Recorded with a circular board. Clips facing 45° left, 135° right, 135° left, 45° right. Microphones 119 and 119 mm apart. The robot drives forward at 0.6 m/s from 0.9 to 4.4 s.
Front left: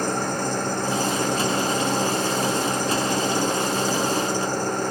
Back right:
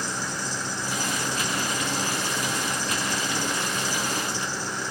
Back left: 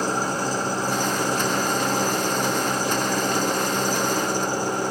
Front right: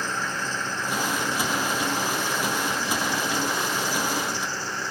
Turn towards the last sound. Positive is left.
turn(degrees=85)